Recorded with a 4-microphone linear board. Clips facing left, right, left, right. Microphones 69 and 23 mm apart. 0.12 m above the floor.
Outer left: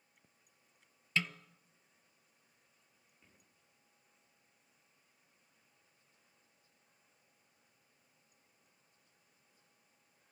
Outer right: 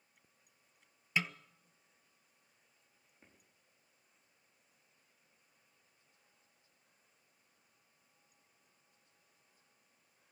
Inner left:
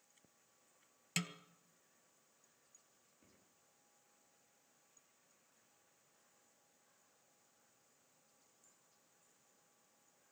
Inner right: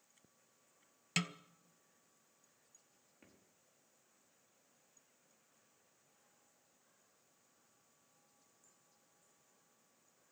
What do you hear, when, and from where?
1.2 s a snare drum: 20° right (ahead or behind), 0.5 m
3.2 s footsteps: 45° right (ahead or behind), 5 m